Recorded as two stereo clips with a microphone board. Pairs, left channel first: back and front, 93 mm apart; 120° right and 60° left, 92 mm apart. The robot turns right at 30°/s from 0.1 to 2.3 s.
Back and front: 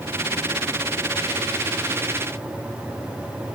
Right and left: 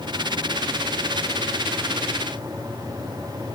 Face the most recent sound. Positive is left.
No sound to turn to.